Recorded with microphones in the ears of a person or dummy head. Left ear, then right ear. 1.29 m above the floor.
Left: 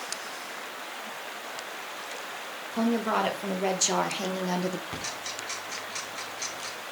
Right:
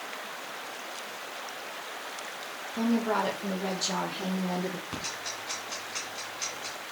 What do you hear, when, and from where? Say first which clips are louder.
2.7 s a woman speaking: left 2 dB; 25° left (ahead or behind), 2 m; by 4.8 s 65° left (ahead or behind), 1.1 m
4.9 s ticking: left 1 dB; 10° left (ahead or behind), 3 m